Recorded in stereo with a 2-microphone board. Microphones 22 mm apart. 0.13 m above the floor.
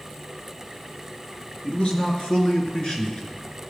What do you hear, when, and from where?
1.6 s a man speaking: 50° left (ahead or behind), 2.5 m; by 3.4 s 40° left (ahead or behind), 2 m